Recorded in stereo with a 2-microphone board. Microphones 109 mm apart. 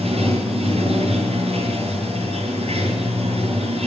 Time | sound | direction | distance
0.0 | running water | 70° right (ahead or behind) | 5.5 m